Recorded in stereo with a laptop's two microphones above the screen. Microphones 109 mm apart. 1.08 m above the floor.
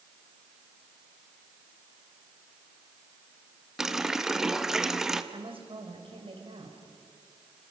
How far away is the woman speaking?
About 5 m.